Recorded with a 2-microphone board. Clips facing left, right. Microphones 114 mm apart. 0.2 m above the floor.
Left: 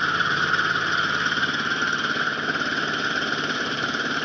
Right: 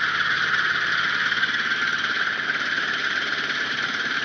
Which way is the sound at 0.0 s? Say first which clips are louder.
Left 2 dB; 30° left (ahead or behind).